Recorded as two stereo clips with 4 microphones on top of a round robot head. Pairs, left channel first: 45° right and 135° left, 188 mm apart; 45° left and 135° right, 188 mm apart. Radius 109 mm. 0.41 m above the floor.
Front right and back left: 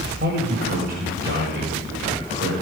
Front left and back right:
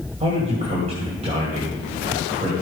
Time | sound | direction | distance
0.2 | a man speaking | 170° left | 2.5 m